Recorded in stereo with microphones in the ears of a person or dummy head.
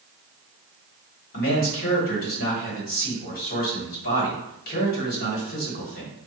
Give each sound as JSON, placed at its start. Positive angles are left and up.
{"t": 1.3, "sound": "a man speaking", "side_deg": 40, "distance_m": 1.3}